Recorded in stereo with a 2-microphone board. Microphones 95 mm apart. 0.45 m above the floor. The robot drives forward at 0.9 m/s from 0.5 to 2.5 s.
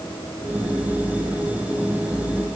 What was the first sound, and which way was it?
Only background noise.